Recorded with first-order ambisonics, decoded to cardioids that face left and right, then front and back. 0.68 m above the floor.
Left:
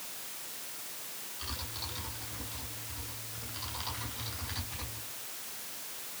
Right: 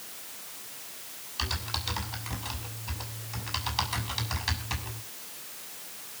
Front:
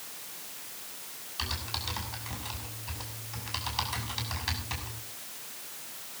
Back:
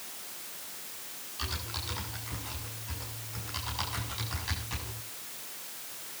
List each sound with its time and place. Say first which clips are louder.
1.4 s typing on a keyboard: right 9 dB, front 3 dB; 65° right, 6 m